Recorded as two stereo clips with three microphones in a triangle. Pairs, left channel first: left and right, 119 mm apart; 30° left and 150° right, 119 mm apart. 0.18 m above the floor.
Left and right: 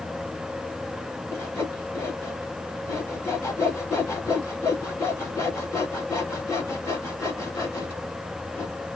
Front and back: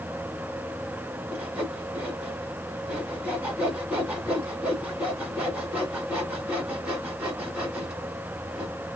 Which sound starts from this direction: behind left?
Sawing, at 1.3 s.